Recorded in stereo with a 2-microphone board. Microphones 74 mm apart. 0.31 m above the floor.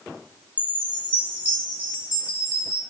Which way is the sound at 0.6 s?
20° right (ahead or behind).